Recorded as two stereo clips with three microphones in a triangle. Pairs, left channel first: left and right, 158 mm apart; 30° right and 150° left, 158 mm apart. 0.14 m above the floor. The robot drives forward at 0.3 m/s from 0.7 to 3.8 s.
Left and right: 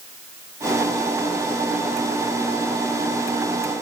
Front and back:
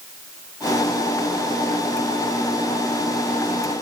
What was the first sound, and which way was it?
Only background noise.